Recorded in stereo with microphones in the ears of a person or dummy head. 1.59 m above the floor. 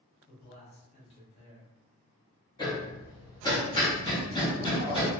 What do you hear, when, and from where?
0.3 s a man speaking: 30° left (ahead or behind), 1.6 m
2.6 s hammering: 20° left (ahead or behind), 0.9 m